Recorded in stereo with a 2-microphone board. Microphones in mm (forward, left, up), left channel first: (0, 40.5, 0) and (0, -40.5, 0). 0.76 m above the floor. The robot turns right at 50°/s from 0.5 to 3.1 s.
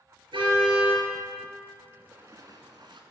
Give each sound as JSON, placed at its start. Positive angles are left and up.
{"t": 0.3, "sound": "a car horn", "side_deg": -80, "distance_m": 5.5}
{"t": 1.9, "sound": "a splash", "azimuth_deg": -160, "distance_m": 1.9}